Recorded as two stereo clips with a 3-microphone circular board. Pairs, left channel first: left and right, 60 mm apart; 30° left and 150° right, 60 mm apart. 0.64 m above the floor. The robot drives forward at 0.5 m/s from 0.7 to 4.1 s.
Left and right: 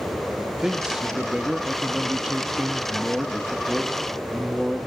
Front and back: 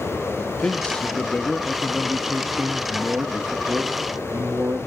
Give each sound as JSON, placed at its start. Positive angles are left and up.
{"t": 0.4, "sound": "a man speaking", "azimuth_deg": -20, "distance_m": 1.3}